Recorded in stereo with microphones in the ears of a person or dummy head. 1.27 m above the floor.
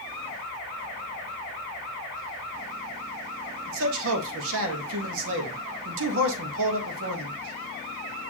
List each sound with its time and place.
3.7 s a man speaking: 80° right, 1.6 m